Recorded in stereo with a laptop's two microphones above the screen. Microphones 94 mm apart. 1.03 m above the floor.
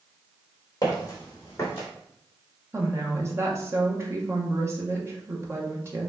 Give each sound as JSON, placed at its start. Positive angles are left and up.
{"t": 0.8, "sound": "footsteps", "side_deg": 35, "distance_m": 1.8}
{"t": 2.7, "sound": "a woman speaking", "side_deg": -30, "distance_m": 0.9}